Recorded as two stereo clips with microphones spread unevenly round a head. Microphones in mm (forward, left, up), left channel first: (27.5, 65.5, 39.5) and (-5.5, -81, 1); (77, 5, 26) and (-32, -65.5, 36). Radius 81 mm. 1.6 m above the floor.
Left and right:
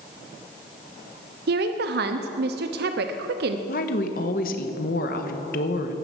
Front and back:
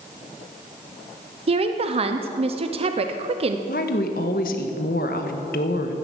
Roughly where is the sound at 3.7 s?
Ahead left.